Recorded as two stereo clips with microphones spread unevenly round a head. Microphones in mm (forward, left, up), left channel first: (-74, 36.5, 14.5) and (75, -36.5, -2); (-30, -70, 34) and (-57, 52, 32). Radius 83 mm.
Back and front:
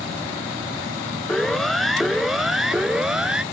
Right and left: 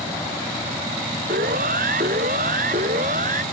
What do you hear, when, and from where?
1.3 s a siren: 65° left; by 3.4 s 60° left